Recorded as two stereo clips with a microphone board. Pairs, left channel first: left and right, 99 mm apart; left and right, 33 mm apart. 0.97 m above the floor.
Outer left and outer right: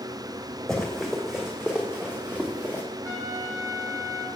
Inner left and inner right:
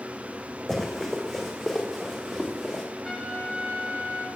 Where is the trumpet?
35° right (ahead or behind), 6 m.